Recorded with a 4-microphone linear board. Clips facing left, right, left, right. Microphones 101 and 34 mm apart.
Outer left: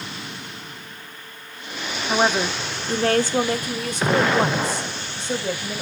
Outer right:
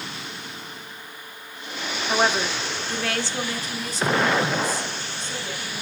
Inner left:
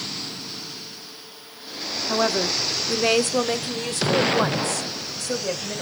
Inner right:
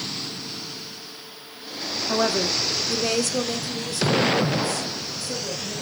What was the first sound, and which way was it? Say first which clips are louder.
A woman speaking: outer left 2 dB, even; 5° left (ahead or behind).